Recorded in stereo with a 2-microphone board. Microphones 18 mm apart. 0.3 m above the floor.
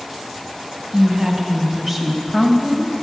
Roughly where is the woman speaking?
Right.